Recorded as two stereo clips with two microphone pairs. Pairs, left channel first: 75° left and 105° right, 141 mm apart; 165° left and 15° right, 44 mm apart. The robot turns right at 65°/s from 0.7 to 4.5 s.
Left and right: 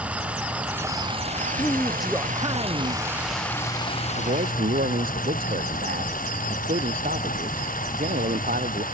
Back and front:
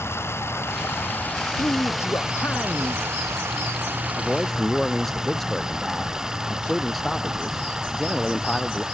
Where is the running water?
175° left; by 8.9 s 60° left.